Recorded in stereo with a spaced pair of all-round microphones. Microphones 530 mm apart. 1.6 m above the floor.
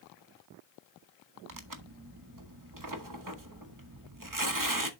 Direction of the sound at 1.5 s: 35° right (ahead or behind).